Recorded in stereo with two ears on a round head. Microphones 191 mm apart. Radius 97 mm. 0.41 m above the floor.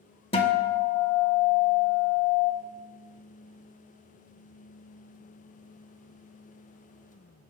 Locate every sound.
0.3 s a guitar: 25° left (ahead or behind), 0.6 m